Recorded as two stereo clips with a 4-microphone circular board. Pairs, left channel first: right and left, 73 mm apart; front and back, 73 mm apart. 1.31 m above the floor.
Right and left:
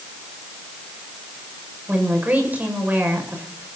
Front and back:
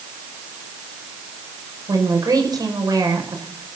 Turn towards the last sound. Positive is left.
turn(degrees=155)